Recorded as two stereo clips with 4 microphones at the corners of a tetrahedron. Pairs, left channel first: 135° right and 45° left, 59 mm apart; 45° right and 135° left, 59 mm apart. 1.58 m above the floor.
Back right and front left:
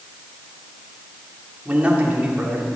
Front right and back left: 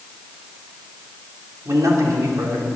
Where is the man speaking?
110° left, 3.5 m.